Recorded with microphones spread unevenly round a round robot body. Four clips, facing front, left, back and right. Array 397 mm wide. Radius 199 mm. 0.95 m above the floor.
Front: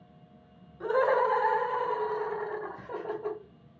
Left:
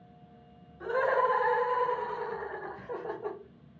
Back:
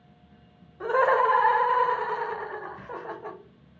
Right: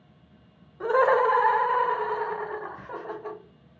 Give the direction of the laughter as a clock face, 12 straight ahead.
4 o'clock.